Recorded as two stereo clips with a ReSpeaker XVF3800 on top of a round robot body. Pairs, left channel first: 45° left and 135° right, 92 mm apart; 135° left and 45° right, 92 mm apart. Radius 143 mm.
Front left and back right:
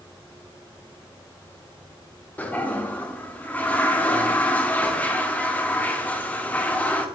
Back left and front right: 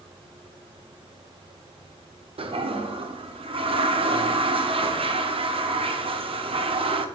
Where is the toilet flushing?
30° right, 1.0 m.